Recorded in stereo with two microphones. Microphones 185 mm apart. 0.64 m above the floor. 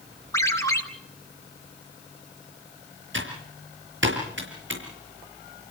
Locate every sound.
0.3 s a ringtone: 15° left (ahead or behind), 3 m
3.1 s typing on a keyboard: 80° right, 6.5 m